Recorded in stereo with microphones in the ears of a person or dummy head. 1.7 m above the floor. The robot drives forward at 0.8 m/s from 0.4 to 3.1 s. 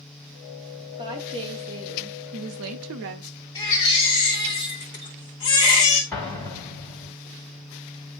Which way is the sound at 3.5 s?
15° left (ahead or behind).